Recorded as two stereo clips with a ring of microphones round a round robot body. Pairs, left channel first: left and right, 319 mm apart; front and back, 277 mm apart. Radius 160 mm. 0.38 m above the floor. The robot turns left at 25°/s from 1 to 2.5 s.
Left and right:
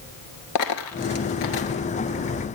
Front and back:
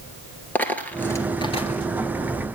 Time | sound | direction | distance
0.6 | a dropped coin | 85° left | 1.4 m